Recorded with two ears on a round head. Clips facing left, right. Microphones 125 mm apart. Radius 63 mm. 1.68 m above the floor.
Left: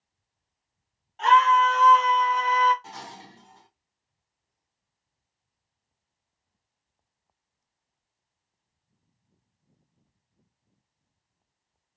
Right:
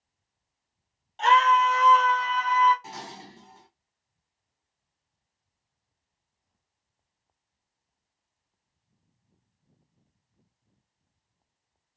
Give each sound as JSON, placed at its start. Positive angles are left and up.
{"t": 1.2, "sound": "a scream", "side_deg": -30, "distance_m": 1.0}
{"t": 2.8, "sound": "dishes clattering", "side_deg": -15, "distance_m": 1.1}